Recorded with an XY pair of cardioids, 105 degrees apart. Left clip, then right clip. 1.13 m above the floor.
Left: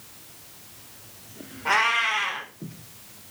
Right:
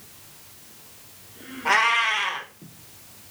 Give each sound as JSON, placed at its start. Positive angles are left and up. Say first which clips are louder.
{"t": 1.6, "sound": "a cat meowing", "louder": "right 2 dB", "azimuth_deg": -20, "distance_m": 1.0}